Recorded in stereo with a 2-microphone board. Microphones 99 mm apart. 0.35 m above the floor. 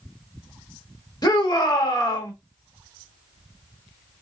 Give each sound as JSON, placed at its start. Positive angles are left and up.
{"t": 1.2, "sound": "a shout", "side_deg": 45, "distance_m": 1.1}